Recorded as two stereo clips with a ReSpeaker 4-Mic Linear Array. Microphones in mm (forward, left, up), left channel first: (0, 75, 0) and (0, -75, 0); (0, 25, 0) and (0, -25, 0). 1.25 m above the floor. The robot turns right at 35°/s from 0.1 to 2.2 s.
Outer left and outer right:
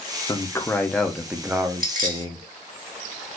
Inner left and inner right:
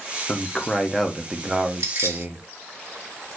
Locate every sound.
0.3 s a man speaking: 150° left, 0.8 m; by 2.5 s 145° right, 0.8 m
1.8 s keys jangling: 70° right (ahead or behind), 1.3 m; by 2.2 s 65° right (ahead or behind), 1.3 m